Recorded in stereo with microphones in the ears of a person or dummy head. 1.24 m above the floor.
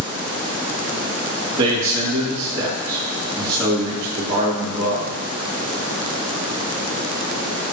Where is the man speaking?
20° right (ahead or behind), 3 m.